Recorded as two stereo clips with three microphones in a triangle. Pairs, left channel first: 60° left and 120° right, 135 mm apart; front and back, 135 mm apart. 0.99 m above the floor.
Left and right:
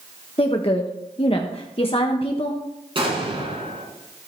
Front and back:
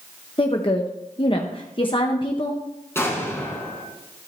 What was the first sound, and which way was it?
A woman speaking, 35° left.